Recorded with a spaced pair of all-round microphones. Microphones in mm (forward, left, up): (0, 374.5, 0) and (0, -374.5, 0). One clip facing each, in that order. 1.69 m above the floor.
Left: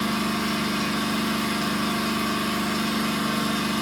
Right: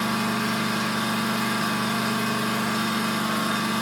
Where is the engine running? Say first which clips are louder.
Even; 70° right (ahead or behind), 1.0 m.